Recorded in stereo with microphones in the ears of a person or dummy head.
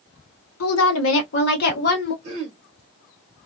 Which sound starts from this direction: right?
Throat clearing, at 2.2 s.